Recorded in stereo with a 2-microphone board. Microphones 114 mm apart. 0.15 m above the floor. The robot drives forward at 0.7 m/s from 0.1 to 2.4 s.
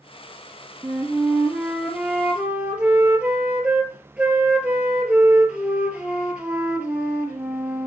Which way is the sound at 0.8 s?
15° right (ahead or behind).